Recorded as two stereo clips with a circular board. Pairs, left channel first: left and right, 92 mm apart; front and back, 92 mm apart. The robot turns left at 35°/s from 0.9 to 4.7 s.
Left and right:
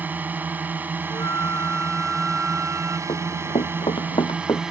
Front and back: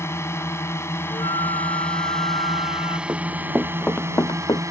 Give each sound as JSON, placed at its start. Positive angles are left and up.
{"t": 0.0, "sound": "a drone", "azimuth_deg": -35}
{"t": 1.1, "sound": "a flute", "azimuth_deg": 35}
{"t": 3.1, "sound": "running footsteps", "azimuth_deg": 120}